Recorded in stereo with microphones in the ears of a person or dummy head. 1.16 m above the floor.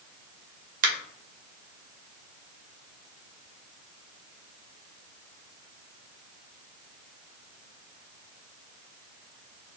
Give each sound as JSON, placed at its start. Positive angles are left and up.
{"t": 0.8, "sound": "a finger snap", "side_deg": -45, "distance_m": 1.3}